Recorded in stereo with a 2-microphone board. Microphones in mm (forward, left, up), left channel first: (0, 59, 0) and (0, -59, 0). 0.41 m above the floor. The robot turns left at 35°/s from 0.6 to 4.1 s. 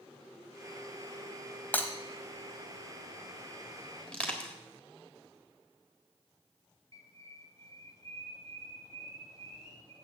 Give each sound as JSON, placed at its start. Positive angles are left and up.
{"t": 1.7, "sound": "breaking glass", "side_deg": 15, "distance_m": 1.2}
{"t": 4.1, "sound": "crushing", "side_deg": 10, "distance_m": 1.7}
{"t": 6.9, "sound": "a bird", "side_deg": 30, "distance_m": 1.7}